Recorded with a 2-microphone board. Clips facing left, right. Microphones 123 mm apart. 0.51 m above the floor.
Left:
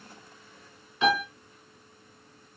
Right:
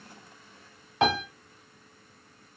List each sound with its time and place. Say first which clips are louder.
1.0 s a piano: even; 65° right (ahead or behind), 0.9 m